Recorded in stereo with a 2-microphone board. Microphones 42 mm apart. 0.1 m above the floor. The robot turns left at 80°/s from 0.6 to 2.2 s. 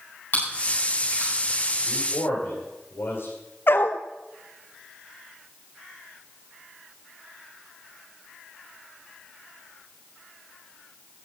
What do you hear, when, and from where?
0.3 s chewing: 45° left (ahead or behind), 8.5 m; by 1.3 s 75° left (ahead or behind), 8.5 m
1.9 s a man speaking: 45° left (ahead or behind), 7.5 m; by 3.3 s 70° left (ahead or behind), 7.5 m
3.7 s a dog barking: 55° left (ahead or behind), 0.9 m